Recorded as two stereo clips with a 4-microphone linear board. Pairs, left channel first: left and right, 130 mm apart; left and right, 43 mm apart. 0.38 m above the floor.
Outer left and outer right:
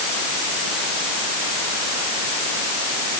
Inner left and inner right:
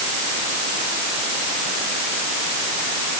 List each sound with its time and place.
Only background noise.